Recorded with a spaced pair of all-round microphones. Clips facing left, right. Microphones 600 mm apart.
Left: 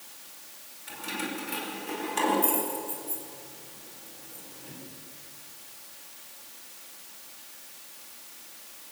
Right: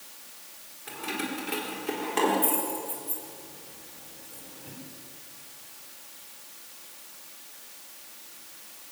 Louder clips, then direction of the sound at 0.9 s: Right 2 dB; 80° right.